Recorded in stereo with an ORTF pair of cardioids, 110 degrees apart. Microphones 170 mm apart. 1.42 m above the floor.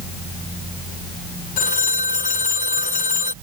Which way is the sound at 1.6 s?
50° left.